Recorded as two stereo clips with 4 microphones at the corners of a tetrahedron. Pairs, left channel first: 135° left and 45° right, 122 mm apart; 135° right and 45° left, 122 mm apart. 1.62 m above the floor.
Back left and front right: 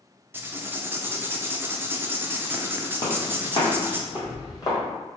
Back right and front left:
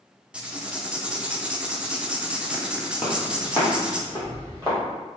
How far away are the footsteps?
About 2.0 m.